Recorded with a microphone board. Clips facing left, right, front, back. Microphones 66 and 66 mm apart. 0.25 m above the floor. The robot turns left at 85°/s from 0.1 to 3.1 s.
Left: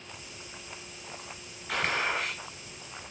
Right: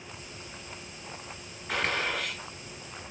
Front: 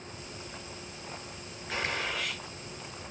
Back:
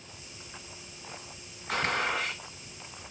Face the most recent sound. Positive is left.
turn(degrees=65)